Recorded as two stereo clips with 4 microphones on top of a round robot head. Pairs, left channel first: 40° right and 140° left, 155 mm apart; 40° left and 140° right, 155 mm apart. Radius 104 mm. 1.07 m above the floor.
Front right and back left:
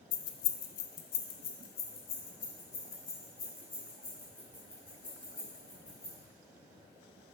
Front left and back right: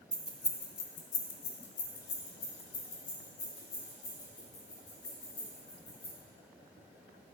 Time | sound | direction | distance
0.1 | keys jangling | 55° right | 0.6 m